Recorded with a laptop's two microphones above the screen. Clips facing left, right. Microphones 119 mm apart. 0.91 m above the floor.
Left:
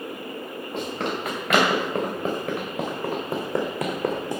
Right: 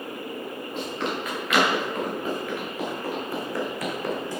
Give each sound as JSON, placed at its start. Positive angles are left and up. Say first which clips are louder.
{"t": 0.7, "sound": "running footsteps", "louder": "left 2 dB", "side_deg": 65, "distance_m": 4.5}